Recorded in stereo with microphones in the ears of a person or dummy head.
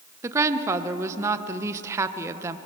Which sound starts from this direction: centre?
A woman speaking, at 0.2 s.